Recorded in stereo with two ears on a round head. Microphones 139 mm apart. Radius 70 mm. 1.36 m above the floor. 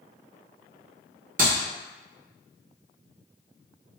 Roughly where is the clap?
Right.